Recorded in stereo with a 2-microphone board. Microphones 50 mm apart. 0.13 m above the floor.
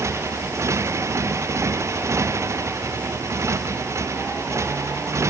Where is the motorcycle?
90° right.